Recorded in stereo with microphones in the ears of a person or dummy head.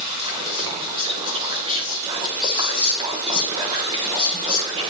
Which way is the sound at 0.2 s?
25° right (ahead or behind).